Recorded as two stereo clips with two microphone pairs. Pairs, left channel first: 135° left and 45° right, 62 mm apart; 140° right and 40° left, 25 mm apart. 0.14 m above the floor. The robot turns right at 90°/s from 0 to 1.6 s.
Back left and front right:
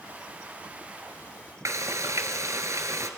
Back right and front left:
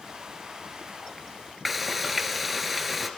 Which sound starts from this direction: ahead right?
Frying, at 1.6 s.